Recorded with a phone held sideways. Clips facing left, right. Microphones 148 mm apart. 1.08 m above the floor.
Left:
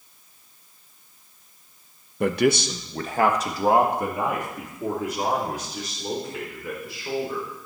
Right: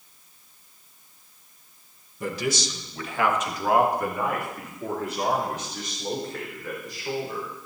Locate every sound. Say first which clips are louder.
2.2 s a man speaking: left 8 dB; 70° left (ahead or behind), 1.1 m; by 7.5 s 5° left (ahead or behind), 5 m